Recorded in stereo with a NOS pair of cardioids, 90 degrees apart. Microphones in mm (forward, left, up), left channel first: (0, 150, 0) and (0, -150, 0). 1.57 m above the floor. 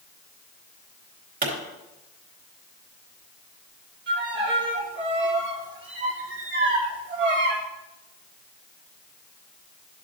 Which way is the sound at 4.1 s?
40° right.